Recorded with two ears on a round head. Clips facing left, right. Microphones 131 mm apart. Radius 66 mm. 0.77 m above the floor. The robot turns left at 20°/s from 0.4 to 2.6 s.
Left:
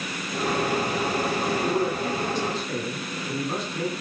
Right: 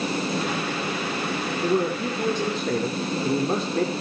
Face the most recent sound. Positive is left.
turn(degrees=-50)  # may be behind; listen again after turning